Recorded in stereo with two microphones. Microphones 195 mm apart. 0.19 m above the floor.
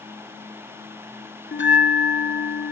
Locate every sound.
1.5 s a bell: 75° left (ahead or behind), 0.7 m